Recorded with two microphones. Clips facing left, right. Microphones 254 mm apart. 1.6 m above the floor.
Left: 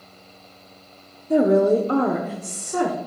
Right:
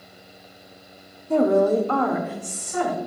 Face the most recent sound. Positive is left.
turn(degrees=50)  # may be behind; listen again after turning